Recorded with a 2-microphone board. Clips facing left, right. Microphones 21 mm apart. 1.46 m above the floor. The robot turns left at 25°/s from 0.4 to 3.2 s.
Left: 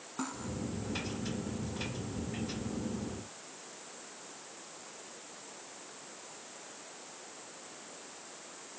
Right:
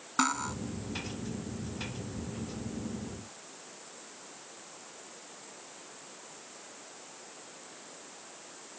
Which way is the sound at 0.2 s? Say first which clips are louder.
Right 10 dB; 70° right (ahead or behind).